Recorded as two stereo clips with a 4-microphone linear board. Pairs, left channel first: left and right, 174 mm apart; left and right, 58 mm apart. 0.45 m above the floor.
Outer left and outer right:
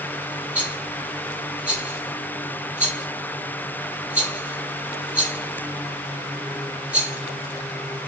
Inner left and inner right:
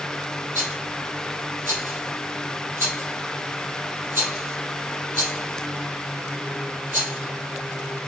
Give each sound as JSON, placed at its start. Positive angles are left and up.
{"t": 0.6, "sound": "a rattle", "side_deg": -45, "distance_m": 3.0}